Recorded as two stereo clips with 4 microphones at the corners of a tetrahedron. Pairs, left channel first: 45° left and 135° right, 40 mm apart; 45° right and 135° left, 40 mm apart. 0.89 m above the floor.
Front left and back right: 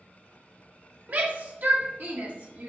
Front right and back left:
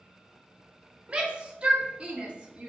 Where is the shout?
165° right, 1.7 m.